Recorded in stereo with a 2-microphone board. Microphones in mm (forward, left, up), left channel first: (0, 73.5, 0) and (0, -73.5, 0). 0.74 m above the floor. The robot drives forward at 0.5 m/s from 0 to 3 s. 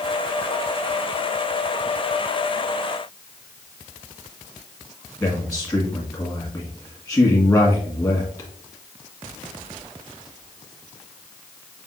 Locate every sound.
5.2 s a man speaking: 25° left (ahead or behind), 1.4 m